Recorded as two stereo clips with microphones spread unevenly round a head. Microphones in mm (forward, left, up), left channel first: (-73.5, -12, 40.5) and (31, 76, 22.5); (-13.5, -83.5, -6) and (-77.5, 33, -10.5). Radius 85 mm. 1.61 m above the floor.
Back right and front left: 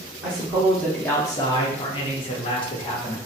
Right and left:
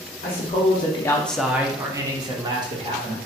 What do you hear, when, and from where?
0.2 s a man speaking: 35° right, 0.7 m; by 3.1 s 170° left, 1.4 m